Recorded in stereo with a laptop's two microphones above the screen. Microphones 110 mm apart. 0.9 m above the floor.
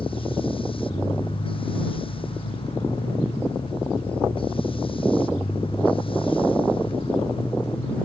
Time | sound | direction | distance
0.0 | a machine running | 50° left (ahead or behind) | ?